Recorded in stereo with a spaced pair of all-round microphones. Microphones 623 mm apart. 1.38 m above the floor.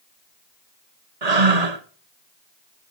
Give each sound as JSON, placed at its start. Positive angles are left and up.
{"t": 1.2, "sound": "breathing", "side_deg": -75, "distance_m": 1.5}